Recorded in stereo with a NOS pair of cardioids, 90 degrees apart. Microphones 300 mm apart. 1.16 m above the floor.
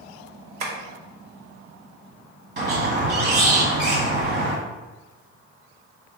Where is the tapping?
65° right, 1.2 m.